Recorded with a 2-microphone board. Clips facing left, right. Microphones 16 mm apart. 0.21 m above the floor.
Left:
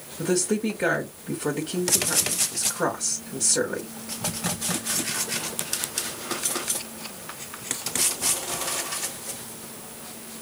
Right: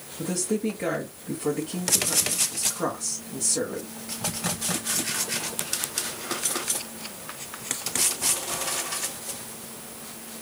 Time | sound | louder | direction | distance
0.2 | a woman speaking | left 3 dB | 25° left (ahead or behind) | 1.4 m